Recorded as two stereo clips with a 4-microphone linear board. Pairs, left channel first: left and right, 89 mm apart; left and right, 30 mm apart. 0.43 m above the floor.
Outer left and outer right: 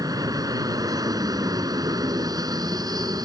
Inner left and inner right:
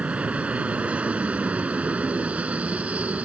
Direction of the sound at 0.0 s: 45° right (ahead or behind).